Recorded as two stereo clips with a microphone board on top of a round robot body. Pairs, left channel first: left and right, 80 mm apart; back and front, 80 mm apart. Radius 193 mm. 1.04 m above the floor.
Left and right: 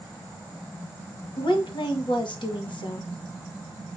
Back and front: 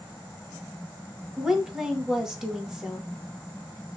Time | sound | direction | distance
1.4 | a woman speaking | 85° left | 1.4 m